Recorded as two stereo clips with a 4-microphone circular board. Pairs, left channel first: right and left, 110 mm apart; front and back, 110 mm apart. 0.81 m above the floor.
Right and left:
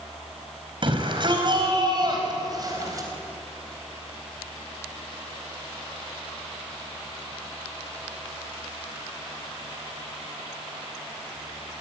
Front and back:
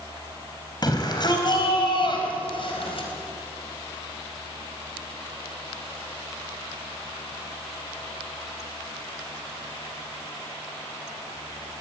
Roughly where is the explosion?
I don't hear an explosion.